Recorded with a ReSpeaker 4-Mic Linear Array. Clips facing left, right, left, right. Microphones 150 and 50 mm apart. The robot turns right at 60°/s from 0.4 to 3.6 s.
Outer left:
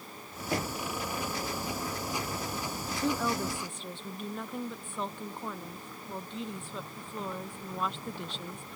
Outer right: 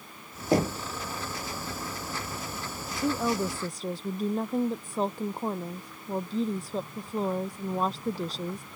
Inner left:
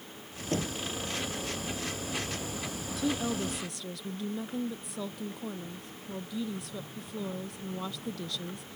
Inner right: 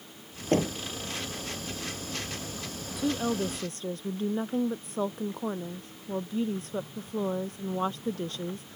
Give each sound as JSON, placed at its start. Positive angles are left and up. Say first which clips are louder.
{"t": 0.5, "sound": "knocking", "louder": "outer right 8 dB, inner right 6 dB", "side_deg": -40}
{"t": 2.9, "sound": "a woman speaking", "louder": "outer right 3 dB, inner right 3 dB", "azimuth_deg": 180}